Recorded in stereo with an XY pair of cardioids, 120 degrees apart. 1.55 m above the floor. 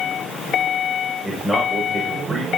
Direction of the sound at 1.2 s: 20° right.